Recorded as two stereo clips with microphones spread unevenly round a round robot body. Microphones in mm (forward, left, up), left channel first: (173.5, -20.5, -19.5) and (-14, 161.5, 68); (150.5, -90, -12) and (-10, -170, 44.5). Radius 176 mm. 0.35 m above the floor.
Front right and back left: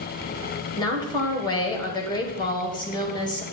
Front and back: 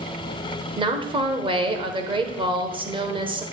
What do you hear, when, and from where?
0.8 s a woman speaking: 80° right, 1.7 m